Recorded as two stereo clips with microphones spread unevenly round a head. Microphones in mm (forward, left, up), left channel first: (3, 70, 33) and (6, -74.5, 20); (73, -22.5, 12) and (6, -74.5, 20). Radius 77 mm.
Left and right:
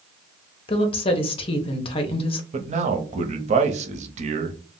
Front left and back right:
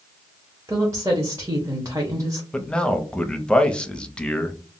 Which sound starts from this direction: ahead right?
A man speaking, at 2.5 s.